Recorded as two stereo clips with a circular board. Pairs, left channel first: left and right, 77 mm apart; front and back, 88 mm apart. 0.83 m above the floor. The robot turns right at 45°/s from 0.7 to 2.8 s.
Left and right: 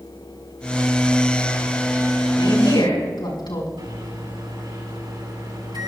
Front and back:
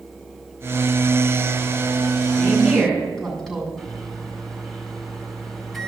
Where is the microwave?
85° right, 5.5 m.